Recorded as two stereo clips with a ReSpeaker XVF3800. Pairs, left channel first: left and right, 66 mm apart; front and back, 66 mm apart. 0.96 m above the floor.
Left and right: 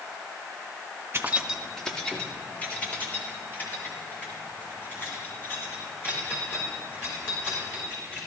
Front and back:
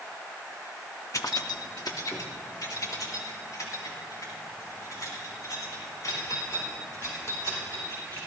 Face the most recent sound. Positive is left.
turn(degrees=35)